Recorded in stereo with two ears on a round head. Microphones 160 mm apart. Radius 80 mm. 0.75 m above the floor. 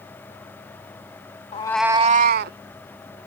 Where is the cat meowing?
35° left (ahead or behind); by 2.6 s 60° right (ahead or behind).